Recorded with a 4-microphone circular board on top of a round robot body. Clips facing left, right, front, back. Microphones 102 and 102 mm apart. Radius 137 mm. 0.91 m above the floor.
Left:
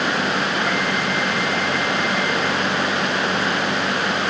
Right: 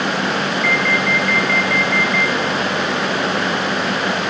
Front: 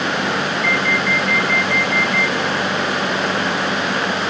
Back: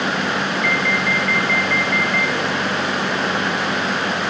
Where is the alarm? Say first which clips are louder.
Right 3 dB, front 1 dB; 85° right, 5.5 m.